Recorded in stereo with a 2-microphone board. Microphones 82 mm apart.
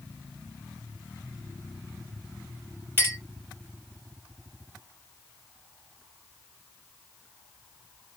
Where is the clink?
25° right (ahead or behind), 2 m.